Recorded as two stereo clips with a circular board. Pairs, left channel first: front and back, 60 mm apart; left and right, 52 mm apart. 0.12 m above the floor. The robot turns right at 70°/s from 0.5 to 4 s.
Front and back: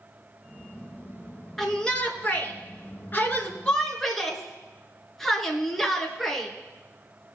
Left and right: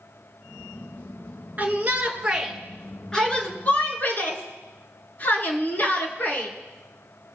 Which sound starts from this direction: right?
A shout, at 1.6 s.